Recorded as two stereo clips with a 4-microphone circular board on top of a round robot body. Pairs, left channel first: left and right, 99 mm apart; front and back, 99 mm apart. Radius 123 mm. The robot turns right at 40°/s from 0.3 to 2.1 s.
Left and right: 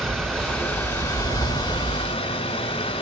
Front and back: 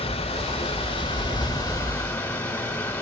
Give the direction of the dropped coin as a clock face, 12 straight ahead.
I don't hear a dropped coin.